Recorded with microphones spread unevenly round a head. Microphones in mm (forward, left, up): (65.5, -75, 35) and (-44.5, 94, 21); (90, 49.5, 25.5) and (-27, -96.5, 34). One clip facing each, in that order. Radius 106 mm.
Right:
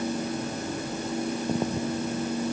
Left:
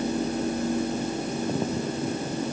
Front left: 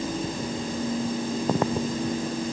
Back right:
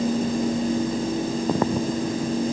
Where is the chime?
I don't hear a chime.